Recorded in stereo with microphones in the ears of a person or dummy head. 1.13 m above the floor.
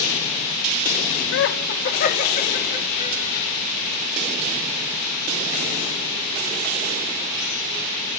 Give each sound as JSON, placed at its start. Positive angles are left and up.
{"t": 1.3, "sound": "laughter", "side_deg": 65, "distance_m": 0.8}